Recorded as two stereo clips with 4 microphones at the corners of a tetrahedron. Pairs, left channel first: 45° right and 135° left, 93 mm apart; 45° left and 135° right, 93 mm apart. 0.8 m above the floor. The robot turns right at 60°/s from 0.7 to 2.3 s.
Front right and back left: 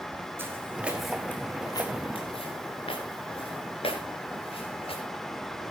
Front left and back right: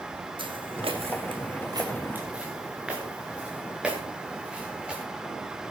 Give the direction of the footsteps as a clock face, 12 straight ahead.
5 o'clock.